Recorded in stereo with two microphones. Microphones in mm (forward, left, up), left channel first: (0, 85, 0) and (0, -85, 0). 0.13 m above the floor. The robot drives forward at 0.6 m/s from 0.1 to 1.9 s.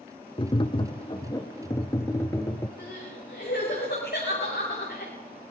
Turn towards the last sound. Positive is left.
turn(degrees=80)